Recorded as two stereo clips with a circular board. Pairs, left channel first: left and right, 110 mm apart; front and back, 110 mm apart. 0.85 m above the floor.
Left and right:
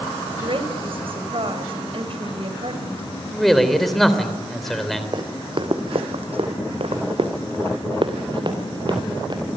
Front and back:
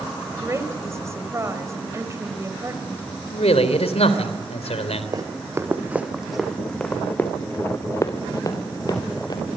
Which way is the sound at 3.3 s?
Straight ahead.